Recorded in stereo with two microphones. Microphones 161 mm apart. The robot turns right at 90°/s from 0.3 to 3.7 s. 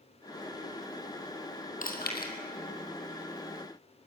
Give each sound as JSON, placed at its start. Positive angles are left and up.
{"t": 1.8, "sound": "chewing", "side_deg": 55, "distance_m": 2.5}